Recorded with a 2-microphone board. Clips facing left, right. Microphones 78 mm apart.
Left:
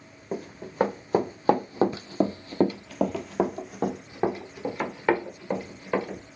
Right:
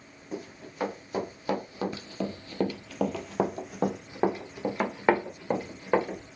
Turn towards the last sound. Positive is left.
turn(degrees=-25)  # may be behind; listen again after turning